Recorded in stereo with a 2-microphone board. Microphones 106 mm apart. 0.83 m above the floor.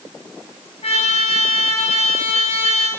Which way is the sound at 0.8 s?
80° left.